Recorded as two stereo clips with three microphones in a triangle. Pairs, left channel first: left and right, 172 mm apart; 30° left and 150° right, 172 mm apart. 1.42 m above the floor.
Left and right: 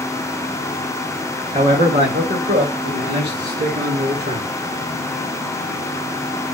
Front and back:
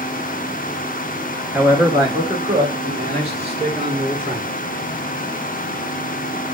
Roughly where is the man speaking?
Right.